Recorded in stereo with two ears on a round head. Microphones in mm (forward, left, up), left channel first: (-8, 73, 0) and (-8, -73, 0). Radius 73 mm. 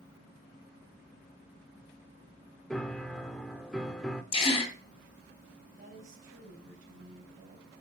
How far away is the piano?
About 0.6 m.